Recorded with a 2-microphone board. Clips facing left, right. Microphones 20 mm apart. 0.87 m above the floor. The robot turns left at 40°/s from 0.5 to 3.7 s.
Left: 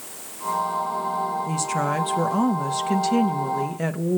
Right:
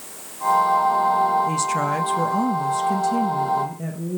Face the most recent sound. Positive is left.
turn(degrees=105)